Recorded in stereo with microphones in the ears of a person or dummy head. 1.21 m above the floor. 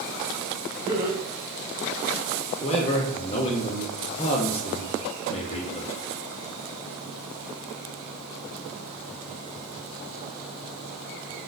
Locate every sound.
0.9 s laughter: 30° right (ahead or behind), 1.7 m
2.6 s a man speaking: 35° left (ahead or behind), 0.6 m